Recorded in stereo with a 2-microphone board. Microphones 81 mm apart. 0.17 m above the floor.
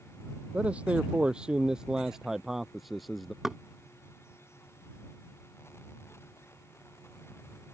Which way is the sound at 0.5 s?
15° right (ahead or behind).